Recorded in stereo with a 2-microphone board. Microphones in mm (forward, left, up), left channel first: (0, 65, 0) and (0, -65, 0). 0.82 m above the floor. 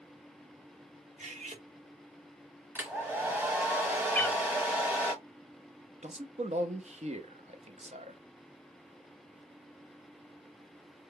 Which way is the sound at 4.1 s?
10° left (ahead or behind).